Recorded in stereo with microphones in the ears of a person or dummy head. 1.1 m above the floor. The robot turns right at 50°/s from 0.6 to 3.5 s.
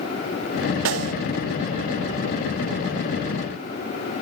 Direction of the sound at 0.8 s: 75° right (ahead or behind).